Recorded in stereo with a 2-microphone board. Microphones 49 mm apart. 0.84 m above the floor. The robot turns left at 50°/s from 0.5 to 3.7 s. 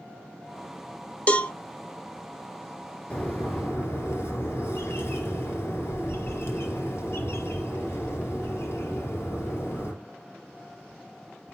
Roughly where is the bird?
Behind left.